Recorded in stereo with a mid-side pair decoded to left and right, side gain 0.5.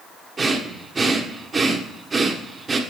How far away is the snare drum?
No snare drum in this recording.